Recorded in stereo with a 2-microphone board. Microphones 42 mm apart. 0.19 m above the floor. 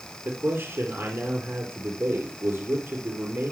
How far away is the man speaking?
About 3.5 m.